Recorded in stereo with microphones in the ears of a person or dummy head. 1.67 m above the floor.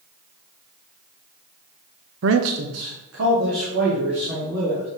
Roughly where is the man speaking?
Right.